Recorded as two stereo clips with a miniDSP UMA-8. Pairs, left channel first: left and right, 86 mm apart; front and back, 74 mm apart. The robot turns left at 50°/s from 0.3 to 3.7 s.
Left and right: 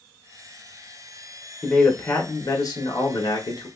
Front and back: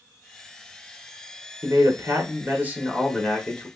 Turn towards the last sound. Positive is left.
turn(degrees=65)